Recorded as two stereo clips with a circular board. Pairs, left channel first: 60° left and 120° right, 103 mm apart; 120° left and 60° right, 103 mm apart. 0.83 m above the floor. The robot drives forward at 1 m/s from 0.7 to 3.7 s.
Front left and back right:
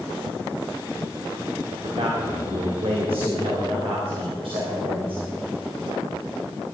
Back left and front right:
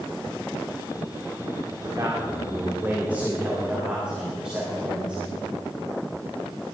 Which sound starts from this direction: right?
A man speaking, at 1.6 s.